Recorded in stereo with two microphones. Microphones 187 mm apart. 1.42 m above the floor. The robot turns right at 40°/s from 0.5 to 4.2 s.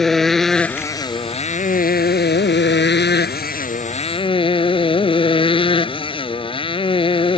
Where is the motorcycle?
Straight ahead; by 7.4 s 150° left.